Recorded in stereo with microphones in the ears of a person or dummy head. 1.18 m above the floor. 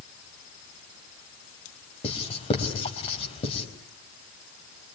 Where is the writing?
30° left (ahead or behind), 4 m.